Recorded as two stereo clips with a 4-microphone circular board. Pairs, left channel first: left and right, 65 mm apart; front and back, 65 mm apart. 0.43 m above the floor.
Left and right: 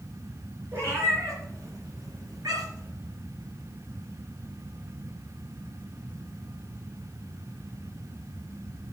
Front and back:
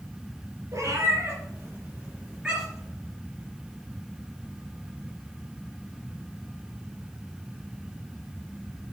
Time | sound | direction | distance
0.7 | a cat meowing | 140° right | 3 m